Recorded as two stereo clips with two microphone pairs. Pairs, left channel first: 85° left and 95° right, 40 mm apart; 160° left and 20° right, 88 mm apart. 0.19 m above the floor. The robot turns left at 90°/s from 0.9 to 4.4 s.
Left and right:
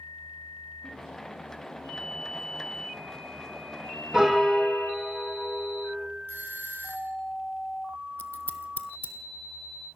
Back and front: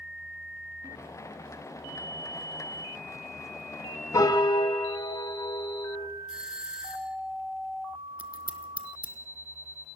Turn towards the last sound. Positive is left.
turn(degrees=50)